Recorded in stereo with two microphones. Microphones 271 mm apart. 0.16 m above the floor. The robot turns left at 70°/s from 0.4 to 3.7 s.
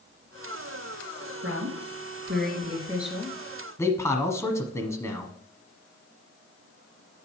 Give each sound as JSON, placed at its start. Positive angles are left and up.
{"t": 1.4, "sound": "a woman speaking", "azimuth_deg": -65, "distance_m": 2.5}
{"t": 3.8, "sound": "a man speaking", "side_deg": 10, "distance_m": 1.1}